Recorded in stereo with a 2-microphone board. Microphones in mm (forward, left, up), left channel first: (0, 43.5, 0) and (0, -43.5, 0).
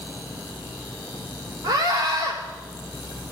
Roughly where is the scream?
Right.